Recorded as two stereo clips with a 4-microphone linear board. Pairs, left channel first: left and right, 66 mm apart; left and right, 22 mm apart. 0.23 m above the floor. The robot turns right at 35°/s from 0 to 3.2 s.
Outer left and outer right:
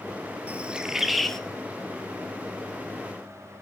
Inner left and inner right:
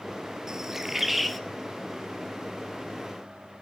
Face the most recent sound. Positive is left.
turn(degrees=70)